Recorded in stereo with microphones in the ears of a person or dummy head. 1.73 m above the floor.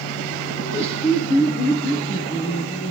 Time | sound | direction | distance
0.6 | laughter | 35° left (ahead or behind) | 1.8 m